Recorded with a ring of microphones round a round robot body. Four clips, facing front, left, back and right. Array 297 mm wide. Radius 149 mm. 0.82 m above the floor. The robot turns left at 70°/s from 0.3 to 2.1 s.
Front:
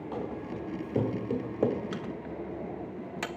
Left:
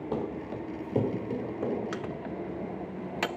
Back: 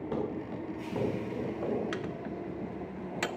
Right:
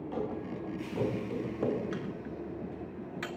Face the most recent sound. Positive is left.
turn(degrees=95)